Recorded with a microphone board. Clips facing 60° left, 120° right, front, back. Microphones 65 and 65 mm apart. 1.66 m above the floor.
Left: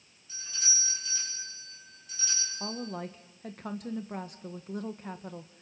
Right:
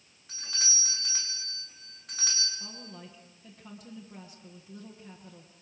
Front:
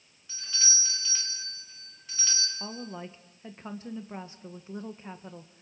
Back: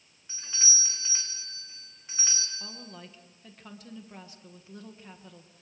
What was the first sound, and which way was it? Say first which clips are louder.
A doorbell: right 1 dB, front 1 dB; 115° right.